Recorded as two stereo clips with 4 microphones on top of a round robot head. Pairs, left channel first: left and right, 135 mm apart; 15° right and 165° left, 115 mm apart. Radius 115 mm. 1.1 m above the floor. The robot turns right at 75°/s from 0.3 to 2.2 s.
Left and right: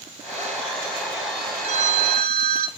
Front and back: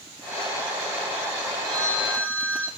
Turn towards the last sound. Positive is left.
turn(degrees=-95)